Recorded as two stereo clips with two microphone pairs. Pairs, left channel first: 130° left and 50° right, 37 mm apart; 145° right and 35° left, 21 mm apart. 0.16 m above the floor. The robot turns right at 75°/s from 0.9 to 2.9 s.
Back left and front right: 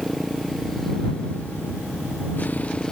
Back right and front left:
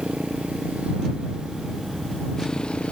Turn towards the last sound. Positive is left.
turn(degrees=-160)